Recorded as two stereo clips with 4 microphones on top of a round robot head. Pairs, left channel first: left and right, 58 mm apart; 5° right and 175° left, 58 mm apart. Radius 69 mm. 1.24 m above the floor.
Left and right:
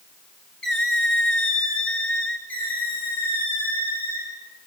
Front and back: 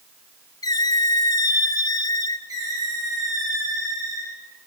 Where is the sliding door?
I don't hear a sliding door.